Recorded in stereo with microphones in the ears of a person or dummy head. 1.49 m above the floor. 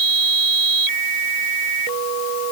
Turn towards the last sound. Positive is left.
No sound to turn to.